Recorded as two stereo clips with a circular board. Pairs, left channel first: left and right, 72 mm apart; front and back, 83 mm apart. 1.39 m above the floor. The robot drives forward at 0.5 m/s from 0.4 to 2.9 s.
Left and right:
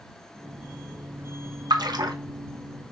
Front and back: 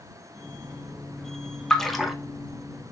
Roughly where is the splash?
Right.